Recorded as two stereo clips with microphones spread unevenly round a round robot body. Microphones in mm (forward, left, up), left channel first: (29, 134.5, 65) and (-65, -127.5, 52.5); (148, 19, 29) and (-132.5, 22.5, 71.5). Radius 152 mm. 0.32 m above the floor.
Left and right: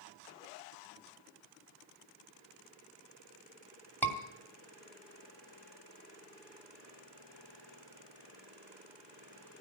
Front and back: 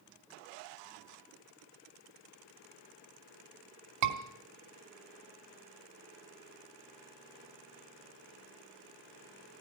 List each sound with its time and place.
4.0 s a scream: 155° left, 2.5 m